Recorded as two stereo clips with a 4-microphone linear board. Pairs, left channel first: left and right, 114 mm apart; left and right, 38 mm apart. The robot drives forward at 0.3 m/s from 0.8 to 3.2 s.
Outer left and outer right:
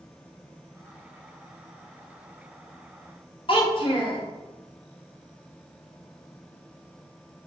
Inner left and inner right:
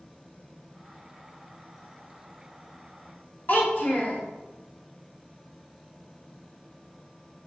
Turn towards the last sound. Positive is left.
turn(degrees=50)  # may be behind; listen again after turning